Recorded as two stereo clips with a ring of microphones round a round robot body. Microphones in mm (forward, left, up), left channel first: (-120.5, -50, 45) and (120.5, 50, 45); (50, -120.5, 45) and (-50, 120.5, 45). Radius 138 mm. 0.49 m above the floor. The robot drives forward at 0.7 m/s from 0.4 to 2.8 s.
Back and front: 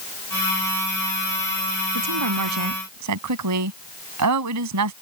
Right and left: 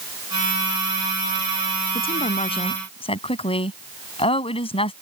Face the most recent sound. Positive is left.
turn(degrees=0)